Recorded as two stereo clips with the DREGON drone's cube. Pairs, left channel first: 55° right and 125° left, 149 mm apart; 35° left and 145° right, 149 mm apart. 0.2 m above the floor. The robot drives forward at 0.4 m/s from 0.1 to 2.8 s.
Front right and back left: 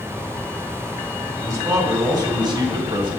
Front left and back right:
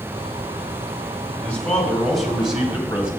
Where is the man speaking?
100° left, 1.5 m; by 3.1 s 135° left, 1.7 m.